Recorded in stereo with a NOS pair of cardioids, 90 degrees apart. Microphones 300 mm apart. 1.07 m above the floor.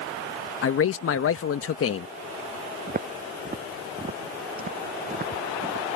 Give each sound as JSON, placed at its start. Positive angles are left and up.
{"t": 0.6, "sound": "a man speaking", "azimuth_deg": 50}
{"t": 2.9, "sound": "footsteps", "azimuth_deg": -30}